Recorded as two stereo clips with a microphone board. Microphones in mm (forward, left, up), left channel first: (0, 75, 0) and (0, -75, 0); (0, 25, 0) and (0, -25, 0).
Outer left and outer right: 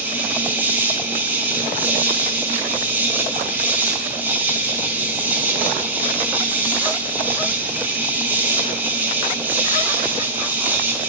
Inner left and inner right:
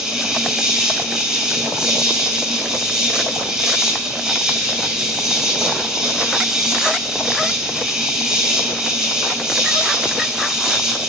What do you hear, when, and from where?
0.0 s an insect: 10° right (ahead or behind), 2.5 m